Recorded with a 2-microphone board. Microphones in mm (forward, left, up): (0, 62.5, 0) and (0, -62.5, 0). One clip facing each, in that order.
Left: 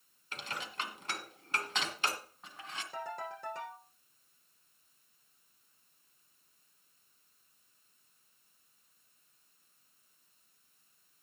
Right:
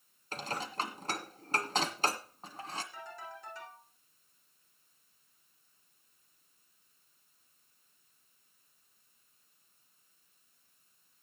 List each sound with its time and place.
0.3 s dishes clattering: 40° right (ahead or behind), 1.6 m
2.9 s a ringtone: 65° left (ahead or behind), 8.5 m